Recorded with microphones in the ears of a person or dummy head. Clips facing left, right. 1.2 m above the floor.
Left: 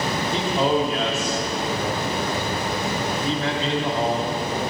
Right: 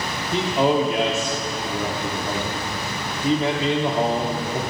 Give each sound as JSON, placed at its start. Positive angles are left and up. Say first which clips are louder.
{"t": 0.3, "sound": "a man speaking", "louder": "right 3 dB", "side_deg": -10, "distance_m": 0.6}